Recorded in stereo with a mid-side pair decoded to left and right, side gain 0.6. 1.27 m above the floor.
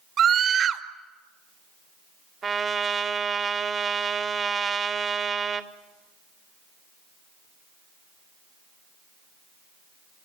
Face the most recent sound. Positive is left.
turn(degrees=-35)